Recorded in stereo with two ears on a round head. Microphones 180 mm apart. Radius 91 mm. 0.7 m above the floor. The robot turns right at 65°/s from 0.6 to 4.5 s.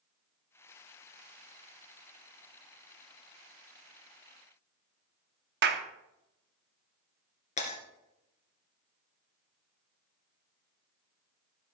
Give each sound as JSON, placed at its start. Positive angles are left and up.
{"t": 5.6, "sound": "a clap", "side_deg": -55, "distance_m": 0.9}
{"t": 7.6, "sound": "breaking glass", "side_deg": 35, "distance_m": 2.5}